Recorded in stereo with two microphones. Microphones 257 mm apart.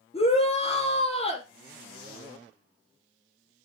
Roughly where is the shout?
Left.